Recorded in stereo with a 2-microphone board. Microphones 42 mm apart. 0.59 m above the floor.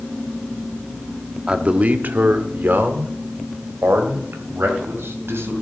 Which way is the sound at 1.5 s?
25° right (ahead or behind).